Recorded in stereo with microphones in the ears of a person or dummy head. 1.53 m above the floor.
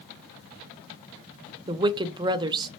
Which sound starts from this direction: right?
A woman speaking, at 1.7 s.